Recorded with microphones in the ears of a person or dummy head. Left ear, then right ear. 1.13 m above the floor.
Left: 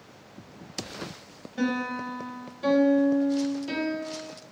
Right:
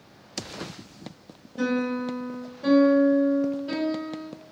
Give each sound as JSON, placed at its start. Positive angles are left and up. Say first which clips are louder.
{"t": 1.6, "sound": "a piano", "louder": "right 2 dB", "side_deg": 55, "distance_m": 1.1}